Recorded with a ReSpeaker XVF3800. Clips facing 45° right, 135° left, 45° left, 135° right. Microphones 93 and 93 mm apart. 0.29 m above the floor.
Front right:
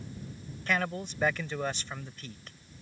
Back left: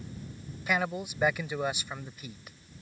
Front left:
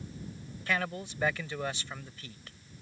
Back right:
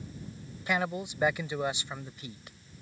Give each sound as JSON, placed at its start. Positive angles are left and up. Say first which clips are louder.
{"t": 0.7, "sound": "a man speaking", "louder": "back left 1 dB, back right 3 dB", "azimuth_deg": -165}